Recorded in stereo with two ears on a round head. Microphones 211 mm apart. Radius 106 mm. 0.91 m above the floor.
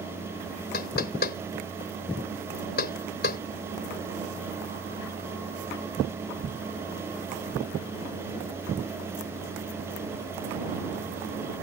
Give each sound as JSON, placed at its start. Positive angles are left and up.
{"t": 0.7, "sound": "knocking", "side_deg": 45}